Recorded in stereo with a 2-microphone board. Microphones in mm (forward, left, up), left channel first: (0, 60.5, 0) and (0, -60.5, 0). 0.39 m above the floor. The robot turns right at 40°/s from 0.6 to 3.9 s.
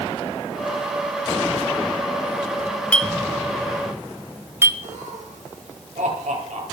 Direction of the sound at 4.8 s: 85° right.